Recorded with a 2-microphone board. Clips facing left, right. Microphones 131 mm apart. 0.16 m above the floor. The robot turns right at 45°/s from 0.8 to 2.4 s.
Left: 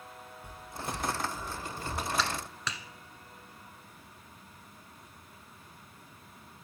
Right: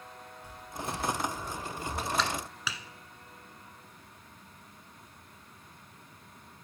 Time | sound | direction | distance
0.4 | footsteps | 55° left (ahead or behind) | 3 m
2.2 | a clap | centre (ahead or behind) | 1.2 m